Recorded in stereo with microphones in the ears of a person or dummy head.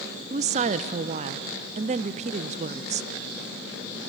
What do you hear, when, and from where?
0.3 s a woman speaking: 35° right (ahead or behind), 0.7 m